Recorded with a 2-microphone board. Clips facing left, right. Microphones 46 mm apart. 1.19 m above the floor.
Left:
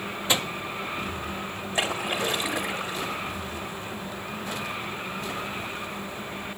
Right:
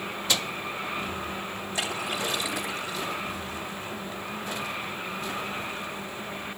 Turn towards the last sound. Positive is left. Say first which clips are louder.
# left 4 dB
turn(degrees=40)  # may be behind; listen again after turning